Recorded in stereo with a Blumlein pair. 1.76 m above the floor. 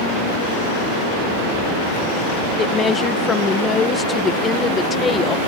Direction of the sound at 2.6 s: 20° left.